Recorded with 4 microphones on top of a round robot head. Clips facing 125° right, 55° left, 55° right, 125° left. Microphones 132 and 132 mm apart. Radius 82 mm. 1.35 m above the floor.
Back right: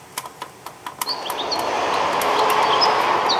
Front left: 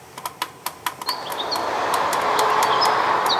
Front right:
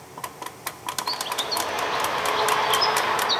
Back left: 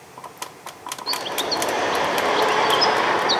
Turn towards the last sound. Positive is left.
turn(degrees=160)